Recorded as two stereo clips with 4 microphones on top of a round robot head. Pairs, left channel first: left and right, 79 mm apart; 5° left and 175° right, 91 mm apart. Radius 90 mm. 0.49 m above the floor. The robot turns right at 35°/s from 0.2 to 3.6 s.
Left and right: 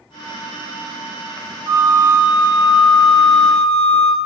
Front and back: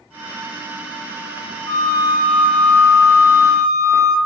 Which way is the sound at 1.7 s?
55° right.